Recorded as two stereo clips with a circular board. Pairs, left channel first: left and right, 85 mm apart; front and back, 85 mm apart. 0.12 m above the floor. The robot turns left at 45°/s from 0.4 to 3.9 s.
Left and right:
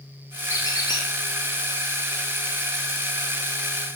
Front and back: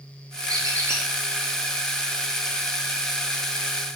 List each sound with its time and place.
0.5 s a squeak: 140° left, 1.6 m; by 1.0 s 115° left, 1.6 m